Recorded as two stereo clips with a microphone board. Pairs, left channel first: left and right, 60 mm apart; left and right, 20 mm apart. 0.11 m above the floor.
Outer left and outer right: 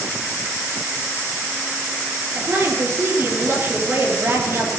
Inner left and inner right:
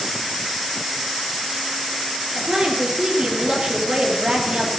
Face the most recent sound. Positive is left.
turn(degrees=-45)  # may be behind; listen again after turning